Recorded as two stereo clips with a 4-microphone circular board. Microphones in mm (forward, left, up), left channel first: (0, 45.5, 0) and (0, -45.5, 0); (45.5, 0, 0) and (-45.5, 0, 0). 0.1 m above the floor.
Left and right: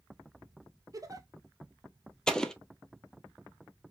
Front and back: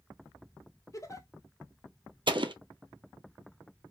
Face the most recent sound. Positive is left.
turn(degrees=170)